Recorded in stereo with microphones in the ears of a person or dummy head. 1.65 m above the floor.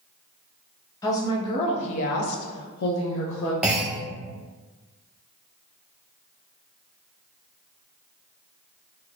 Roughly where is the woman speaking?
Centre.